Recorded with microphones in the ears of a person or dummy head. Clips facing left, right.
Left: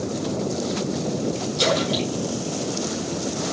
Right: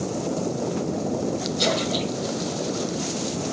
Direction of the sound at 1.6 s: 65° left (ahead or behind).